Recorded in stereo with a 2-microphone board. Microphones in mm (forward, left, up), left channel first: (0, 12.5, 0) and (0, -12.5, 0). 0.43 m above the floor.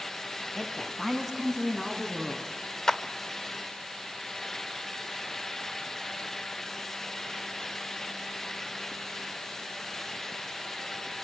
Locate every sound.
0.6 s a woman speaking: 20° left (ahead or behind), 2.5 m; by 2.5 s 10° left (ahead or behind), 4 m
2.9 s a clap: 25° left (ahead or behind), 1.0 m